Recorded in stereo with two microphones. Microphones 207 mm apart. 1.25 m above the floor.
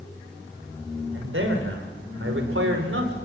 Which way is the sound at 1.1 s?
85° right.